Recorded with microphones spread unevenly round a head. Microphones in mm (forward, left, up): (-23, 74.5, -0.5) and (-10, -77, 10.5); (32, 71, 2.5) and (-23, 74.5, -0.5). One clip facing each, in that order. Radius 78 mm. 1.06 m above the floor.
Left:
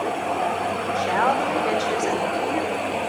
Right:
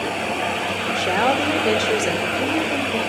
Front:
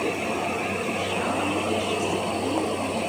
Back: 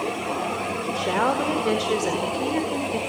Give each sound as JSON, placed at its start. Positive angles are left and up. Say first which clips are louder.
{"t": 0.9, "sound": "a woman speaking", "louder": "right 2 dB, back 7 dB", "azimuth_deg": -135, "distance_m": 4.0}